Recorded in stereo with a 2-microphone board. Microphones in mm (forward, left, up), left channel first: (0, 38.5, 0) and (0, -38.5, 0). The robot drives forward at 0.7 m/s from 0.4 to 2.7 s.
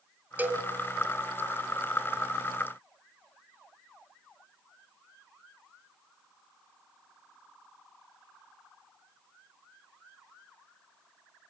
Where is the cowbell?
25° right (ahead or behind), 1.8 m.